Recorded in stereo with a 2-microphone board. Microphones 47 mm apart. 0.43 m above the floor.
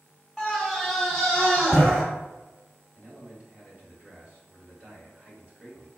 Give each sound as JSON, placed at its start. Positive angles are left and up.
{"t": 0.4, "sound": "a scream", "side_deg": 10, "distance_m": 1.2}
{"t": 3.0, "sound": "a man speaking", "side_deg": -30, "distance_m": 1.9}